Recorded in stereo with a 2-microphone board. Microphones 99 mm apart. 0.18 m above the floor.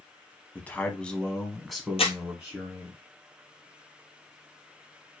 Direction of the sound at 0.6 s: 15° left (ahead or behind).